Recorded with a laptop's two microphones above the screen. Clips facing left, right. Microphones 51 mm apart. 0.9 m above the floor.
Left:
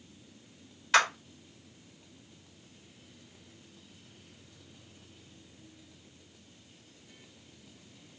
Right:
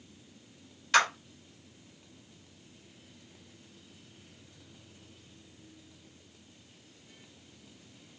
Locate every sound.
0.9 s a clap: 5° left (ahead or behind), 1.9 m